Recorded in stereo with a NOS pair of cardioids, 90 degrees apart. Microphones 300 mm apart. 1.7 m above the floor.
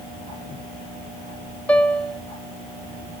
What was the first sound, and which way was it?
A piano, 5° left.